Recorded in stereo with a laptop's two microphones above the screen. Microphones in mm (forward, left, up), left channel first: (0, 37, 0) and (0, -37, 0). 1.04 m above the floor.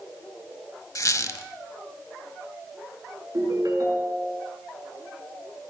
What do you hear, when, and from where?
0.9 s a squeak: 50° left (ahead or behind), 1.1 m
3.3 s a ringtone: 50° right (ahead or behind), 7 m